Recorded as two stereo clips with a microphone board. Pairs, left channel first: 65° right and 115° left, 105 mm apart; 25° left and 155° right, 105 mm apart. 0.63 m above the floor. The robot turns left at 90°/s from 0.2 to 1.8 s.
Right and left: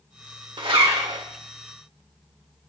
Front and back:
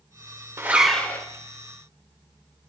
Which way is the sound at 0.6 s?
140° left.